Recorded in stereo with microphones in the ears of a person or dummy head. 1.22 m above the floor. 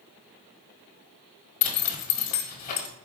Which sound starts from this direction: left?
A zipper, at 1.6 s.